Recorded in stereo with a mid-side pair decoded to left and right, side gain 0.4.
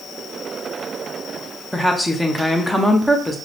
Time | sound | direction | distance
1.7 | a woman speaking | straight ahead | 0.9 m